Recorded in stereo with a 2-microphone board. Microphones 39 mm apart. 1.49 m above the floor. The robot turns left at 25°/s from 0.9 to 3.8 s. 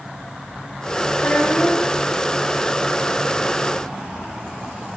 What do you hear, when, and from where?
1.1 s a child speaking: 55° left (ahead or behind), 8.5 m; by 1.9 s 35° left (ahead or behind), 8.5 m